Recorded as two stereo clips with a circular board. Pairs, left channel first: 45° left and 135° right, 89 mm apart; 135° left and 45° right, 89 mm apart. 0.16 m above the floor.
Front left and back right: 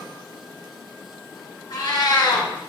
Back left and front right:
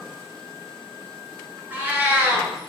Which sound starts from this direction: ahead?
A cat meowing, at 1.7 s.